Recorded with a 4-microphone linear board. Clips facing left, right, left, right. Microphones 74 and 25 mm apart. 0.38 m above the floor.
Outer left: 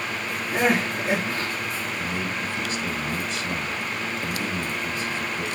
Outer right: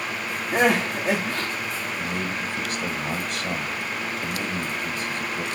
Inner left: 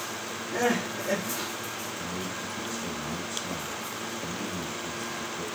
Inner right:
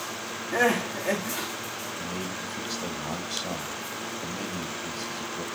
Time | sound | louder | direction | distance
0.5 | crying | outer right 2 dB, inner right 3 dB | 75° right (ahead or behind) | 6 m
2.0 | a man speaking | outer right 1 dB, inner right 1 dB | 55° right (ahead or behind) | 2 m